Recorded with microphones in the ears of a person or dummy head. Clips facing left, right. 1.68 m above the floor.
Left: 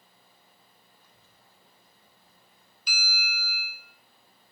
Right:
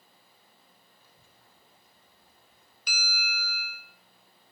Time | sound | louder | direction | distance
1.0 | a child speaking | even | 5° right (ahead or behind) | 4 m
2.9 | a bell | even | 40° right (ahead or behind) | 2 m